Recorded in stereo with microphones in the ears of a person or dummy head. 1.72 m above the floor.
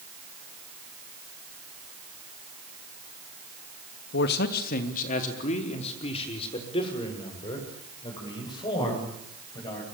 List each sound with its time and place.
4.1 s a man speaking: 65° left (ahead or behind), 2.5 m; by 9.8 s 25° left (ahead or behind), 10.5 m